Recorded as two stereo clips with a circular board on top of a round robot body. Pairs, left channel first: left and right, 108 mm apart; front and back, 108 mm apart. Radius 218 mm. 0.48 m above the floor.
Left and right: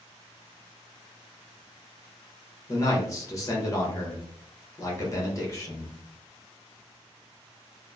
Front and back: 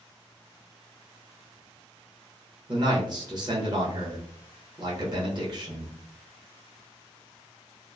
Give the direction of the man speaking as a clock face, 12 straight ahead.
7 o'clock.